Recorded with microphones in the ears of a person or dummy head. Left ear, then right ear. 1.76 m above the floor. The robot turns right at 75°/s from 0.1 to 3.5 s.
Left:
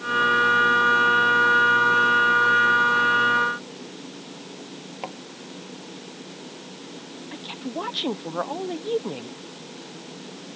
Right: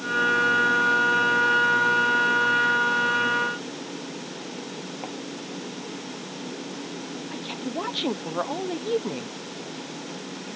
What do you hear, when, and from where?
5.0 s a thud: 25° left (ahead or behind)
7.3 s a woman speaking: centre (ahead or behind)